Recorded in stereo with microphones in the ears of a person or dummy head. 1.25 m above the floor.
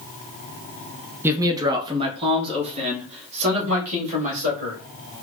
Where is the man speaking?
10° right (ahead or behind), 0.6 m; by 4.8 s 35° right (ahead or behind), 2.5 m.